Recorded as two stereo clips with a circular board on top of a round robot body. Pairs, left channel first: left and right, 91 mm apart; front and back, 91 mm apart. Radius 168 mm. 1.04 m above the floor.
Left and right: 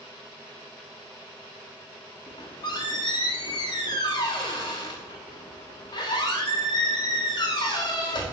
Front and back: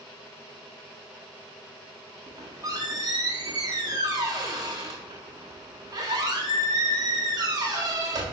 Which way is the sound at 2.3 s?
130° left.